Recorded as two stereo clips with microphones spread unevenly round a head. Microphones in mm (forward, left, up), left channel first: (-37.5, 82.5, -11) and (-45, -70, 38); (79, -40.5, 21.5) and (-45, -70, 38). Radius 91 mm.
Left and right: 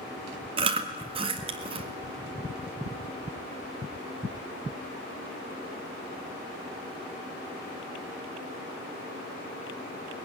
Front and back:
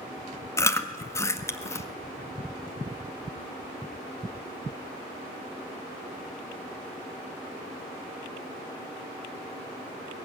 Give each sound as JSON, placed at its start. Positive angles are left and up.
{"t": 0.6, "sound": "chewing", "azimuth_deg": -55, "distance_m": 1.6}